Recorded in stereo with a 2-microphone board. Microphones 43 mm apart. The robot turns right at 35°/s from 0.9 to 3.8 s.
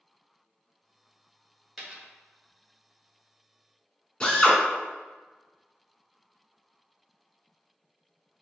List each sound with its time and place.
1.8 s a dropped coin: 5° right (ahead or behind), 1.6 m; by 2.1 s 5° left (ahead or behind), 1.6 m
4.2 s a drill: 25° left (ahead or behind), 1.1 m